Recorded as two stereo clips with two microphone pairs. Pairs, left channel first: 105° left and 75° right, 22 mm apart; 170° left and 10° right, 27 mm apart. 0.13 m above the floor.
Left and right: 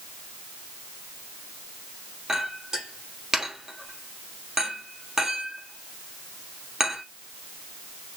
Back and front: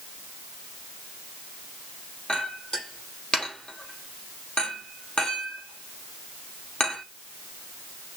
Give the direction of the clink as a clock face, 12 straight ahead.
5 o'clock.